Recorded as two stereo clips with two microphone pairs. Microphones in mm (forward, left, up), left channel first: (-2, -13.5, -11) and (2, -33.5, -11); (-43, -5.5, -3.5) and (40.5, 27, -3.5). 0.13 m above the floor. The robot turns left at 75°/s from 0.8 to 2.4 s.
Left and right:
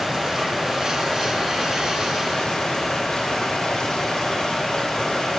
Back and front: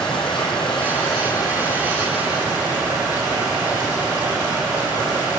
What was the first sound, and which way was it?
Running water, 155° right.